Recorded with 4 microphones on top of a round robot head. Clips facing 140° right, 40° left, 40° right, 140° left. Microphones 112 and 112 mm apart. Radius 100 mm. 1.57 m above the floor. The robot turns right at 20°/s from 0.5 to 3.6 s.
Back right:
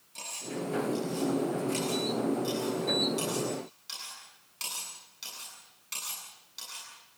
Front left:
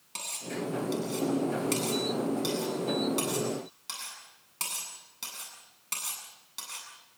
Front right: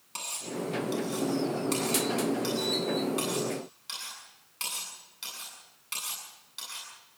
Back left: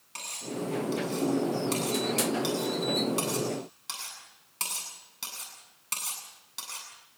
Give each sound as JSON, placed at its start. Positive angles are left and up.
{"t": 0.1, "sound": "cutlery clinking", "azimuth_deg": 25, "distance_m": 8.0}